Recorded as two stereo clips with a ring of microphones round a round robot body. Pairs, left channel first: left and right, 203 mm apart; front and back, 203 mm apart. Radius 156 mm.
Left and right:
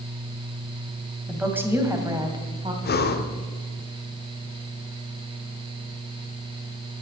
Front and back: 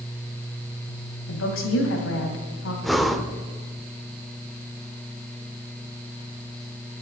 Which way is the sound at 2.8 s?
90° left.